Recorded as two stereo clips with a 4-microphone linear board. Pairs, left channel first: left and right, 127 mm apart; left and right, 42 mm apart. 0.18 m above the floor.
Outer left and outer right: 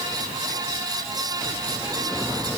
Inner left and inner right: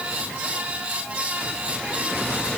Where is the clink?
No clink in this recording.